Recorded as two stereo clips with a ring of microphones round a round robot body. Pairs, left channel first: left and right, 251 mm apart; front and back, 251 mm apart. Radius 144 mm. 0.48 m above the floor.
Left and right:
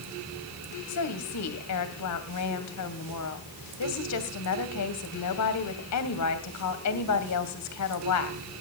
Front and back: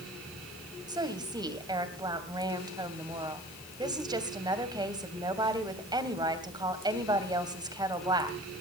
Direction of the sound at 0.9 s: 105° left.